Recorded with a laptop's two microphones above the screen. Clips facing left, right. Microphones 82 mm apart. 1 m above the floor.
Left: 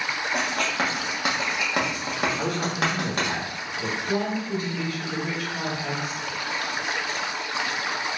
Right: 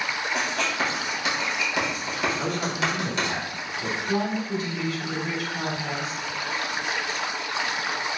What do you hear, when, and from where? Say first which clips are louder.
0.3 s writing: left 1 dB; 45° left (ahead or behind), 1.2 m
2.4 s a man speaking: left 1 dB; 55° left (ahead or behind), 1.6 m
4.0 s a woman speaking: right 1 dB; 20° left (ahead or behind), 2 m